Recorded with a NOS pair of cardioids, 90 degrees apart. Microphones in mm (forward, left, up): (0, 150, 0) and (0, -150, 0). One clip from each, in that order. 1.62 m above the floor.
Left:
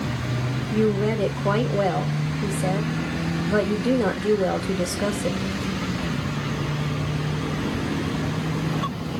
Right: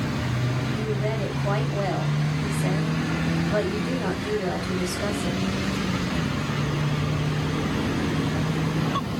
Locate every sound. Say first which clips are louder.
0.7 s a woman speaking: left 9 dB; 60° left, 2.5 m